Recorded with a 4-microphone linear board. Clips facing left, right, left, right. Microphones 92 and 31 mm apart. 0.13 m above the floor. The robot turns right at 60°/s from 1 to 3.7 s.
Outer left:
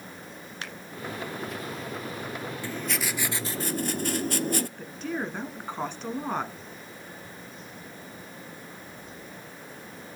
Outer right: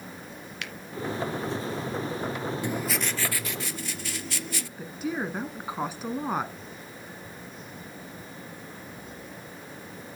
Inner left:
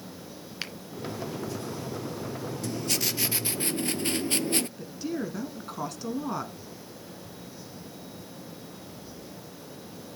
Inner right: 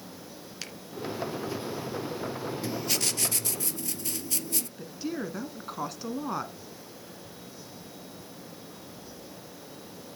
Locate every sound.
0.6 s a finger snap: 30° left (ahead or behind), 1.3 m
2.6 s writing: 20° right, 0.6 m; by 4.7 s 45° left, 0.6 m
4.8 s a woman speaking: 10° right (ahead or behind), 1.2 m